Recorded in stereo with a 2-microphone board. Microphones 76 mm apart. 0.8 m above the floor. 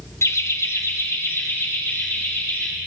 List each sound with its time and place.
0.2 s laughter: 40° left (ahead or behind), 0.8 m; by 2.7 s 30° left (ahead or behind), 4 m